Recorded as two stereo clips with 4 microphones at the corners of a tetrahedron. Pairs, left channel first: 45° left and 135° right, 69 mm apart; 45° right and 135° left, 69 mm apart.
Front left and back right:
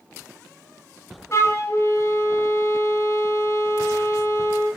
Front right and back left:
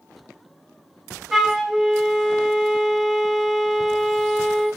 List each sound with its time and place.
1.3 s a flute: 55° left, 0.9 m